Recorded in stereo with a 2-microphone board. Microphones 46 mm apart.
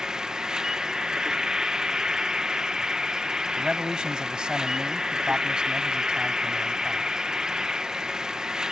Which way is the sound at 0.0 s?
15° right (ahead or behind).